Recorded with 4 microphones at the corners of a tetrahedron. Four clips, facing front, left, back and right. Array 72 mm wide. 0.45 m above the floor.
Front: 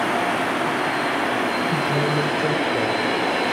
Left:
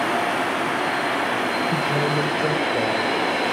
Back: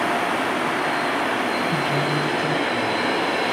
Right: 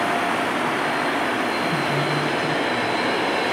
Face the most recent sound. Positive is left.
turn(degrees=55)